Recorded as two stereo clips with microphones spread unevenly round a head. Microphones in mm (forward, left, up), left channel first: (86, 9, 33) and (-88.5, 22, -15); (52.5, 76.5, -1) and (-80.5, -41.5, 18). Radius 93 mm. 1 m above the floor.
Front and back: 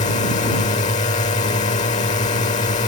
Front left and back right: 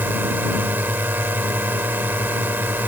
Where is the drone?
60° right.